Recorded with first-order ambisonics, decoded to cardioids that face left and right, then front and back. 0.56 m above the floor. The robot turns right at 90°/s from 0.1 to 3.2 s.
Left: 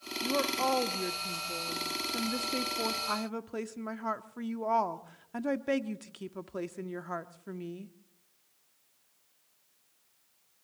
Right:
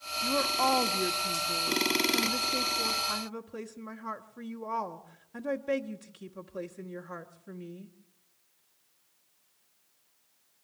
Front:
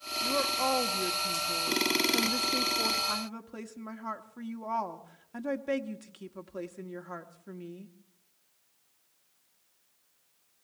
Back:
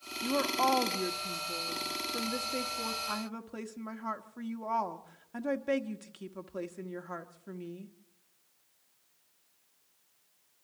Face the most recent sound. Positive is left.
turn(degrees=95)